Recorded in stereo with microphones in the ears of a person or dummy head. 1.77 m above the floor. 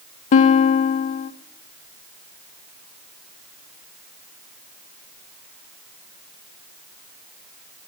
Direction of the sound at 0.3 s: 50° left (ahead or behind).